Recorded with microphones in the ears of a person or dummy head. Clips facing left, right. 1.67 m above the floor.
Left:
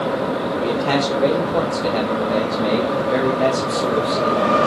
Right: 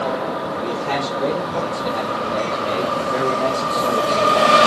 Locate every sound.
0.6 s a man speaking: 65° left (ahead or behind), 3 m; by 4.7 s 5° left (ahead or behind), 1.9 m